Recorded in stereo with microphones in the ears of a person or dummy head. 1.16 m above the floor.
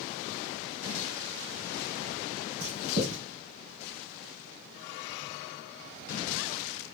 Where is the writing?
60° right (ahead or behind), 2 m.